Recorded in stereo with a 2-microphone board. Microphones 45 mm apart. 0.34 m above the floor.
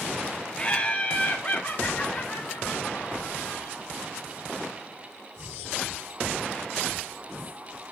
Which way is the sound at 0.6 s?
20° left (ahead or behind).